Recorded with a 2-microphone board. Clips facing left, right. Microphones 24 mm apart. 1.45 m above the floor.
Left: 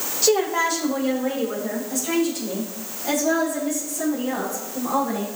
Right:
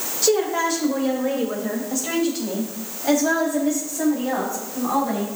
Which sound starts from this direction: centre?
A woman speaking, at 0.2 s.